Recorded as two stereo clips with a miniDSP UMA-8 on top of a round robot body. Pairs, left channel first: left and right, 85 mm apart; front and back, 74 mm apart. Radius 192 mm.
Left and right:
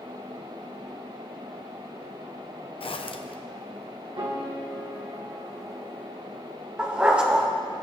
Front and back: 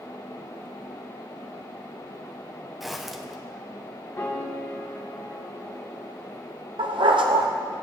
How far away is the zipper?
About 0.9 m.